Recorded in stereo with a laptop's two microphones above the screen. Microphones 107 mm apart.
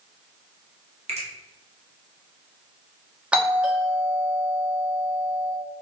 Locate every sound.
1.1 s a finger snap: 90° right, 0.8 m
3.3 s a doorbell: 10° right (ahead or behind), 0.8 m